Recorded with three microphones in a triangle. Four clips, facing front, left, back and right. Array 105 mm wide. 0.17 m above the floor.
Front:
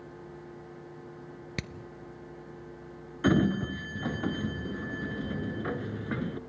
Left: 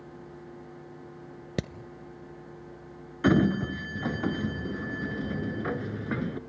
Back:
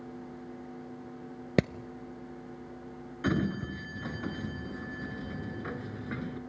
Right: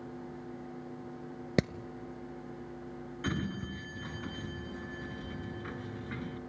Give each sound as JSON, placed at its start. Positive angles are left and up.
{"t": 1.6, "sound": "hammering", "azimuth_deg": -165, "distance_m": 0.7}
{"t": 3.2, "sound": "a sliding door", "azimuth_deg": 65, "distance_m": 0.7}